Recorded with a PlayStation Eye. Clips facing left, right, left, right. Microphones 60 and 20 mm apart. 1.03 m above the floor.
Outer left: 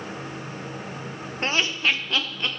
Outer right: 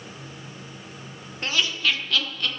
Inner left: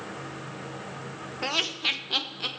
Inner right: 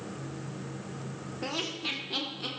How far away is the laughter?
About 0.8 m.